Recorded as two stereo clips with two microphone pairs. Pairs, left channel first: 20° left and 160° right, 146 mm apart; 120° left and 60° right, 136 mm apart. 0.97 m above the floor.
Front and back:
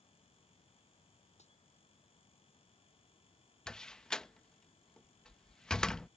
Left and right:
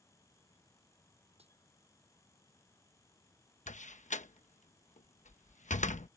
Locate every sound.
1.4 s a dropped coin: 20° right
3.7 s a door slam: 105° left